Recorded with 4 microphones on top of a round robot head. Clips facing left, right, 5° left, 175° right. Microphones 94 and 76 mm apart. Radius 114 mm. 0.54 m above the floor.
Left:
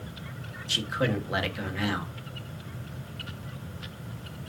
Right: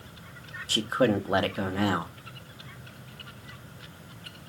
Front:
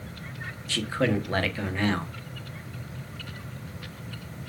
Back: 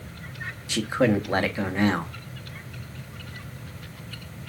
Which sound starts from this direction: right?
A man speaking, at 0.7 s.